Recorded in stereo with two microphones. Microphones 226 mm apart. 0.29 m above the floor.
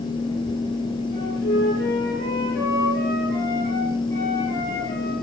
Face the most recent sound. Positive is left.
turn(degrees=55)  # may be behind; listen again after turning